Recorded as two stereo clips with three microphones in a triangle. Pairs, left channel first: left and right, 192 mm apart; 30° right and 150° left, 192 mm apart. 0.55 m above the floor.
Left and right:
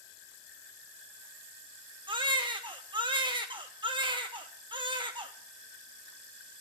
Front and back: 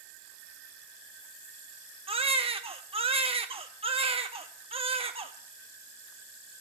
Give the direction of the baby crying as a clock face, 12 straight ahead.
5 o'clock.